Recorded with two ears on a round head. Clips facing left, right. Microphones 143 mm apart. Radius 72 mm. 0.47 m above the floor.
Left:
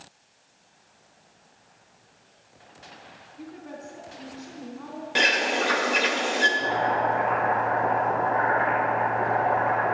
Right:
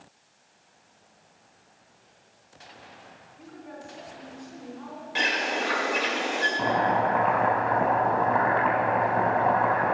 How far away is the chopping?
About 3.5 m.